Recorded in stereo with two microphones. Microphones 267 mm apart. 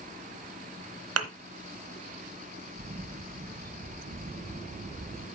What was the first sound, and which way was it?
A thud, 65° right (ahead or behind).